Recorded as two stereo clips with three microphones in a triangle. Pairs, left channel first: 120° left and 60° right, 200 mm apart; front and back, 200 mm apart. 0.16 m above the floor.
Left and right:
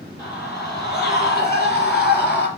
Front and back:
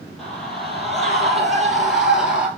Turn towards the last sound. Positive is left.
turn(degrees=95)